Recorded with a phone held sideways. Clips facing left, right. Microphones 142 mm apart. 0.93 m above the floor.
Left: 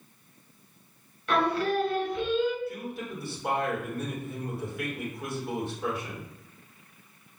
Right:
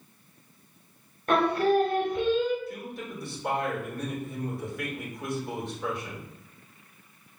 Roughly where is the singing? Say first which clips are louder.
Right 3 dB; right.